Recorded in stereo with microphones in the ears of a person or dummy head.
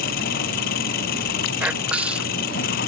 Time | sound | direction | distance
0.0 | an engine running | 55° left (ahead or behind) | ?
1.6 | whispering | 5° right (ahead or behind) | ?